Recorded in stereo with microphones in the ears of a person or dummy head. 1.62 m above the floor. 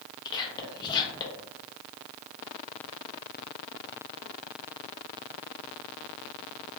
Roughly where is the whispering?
Left.